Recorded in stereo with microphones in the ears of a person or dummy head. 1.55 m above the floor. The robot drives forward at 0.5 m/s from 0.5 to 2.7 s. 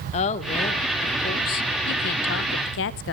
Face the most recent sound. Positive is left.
turn(degrees=60)  # may be behind; listen again after turning